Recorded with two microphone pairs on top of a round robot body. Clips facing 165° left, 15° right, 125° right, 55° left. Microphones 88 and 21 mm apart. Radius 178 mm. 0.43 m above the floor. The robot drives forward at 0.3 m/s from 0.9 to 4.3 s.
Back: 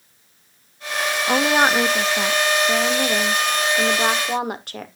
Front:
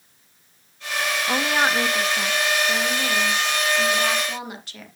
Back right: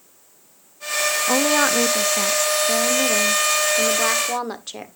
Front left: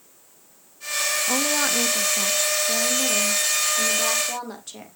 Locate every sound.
1.3 s a woman speaking: 150° right, 0.9 m; by 4.9 s 170° right, 1.5 m